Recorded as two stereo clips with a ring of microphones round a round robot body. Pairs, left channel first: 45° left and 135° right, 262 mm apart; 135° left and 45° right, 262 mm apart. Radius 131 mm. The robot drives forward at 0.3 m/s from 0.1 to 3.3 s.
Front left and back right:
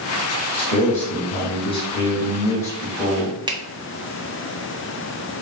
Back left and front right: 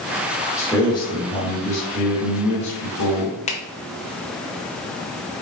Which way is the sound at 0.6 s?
65° left.